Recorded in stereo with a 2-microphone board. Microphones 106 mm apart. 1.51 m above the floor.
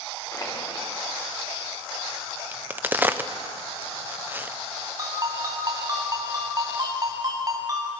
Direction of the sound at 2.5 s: 15° right (ahead or behind).